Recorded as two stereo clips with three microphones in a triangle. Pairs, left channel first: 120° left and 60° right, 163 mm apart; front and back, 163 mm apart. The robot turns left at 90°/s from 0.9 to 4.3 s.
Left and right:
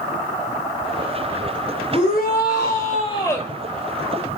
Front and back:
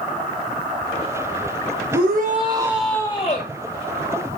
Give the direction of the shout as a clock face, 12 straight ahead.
6 o'clock.